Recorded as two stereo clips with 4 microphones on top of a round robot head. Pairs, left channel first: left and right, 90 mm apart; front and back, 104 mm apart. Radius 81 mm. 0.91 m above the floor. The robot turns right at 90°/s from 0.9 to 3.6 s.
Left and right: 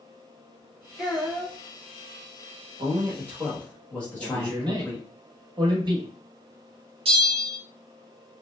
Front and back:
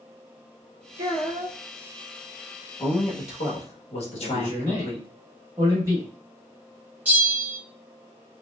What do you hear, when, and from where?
1.0 s a child speaking: 175° left, 1.3 m; by 1.6 s 130° right, 1.3 m
2.8 s a man speaking: 60° right, 1.1 m; by 5.1 s 15° left, 1.1 m
4.2 s a man speaking: 120° right, 1.4 m
7.0 s a bell: 105° right, 1.1 m